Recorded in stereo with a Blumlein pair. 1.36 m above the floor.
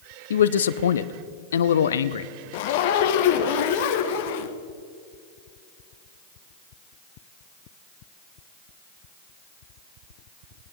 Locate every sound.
0.3 s a man speaking: 65° left, 0.5 m
2.5 s a zipper: 50° left, 1.0 m